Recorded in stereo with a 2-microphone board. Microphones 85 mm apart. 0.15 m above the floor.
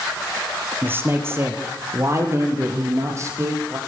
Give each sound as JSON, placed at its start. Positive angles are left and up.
{"t": 0.8, "sound": "a man speaking", "side_deg": -25, "distance_m": 4.0}